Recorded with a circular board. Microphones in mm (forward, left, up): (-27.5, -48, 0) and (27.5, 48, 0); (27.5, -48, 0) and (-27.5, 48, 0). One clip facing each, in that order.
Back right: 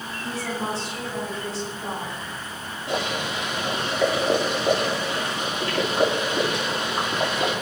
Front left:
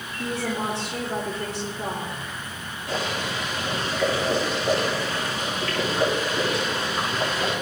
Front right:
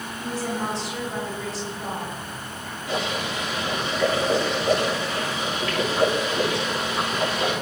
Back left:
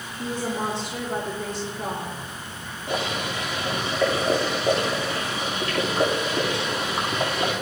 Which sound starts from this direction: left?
A woman speaking, at 0.2 s.